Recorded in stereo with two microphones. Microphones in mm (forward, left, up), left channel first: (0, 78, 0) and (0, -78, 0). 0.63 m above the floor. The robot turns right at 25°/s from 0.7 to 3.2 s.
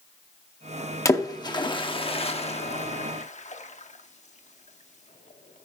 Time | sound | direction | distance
1.1 | a splash | 20° left (ahead or behind) | 0.8 m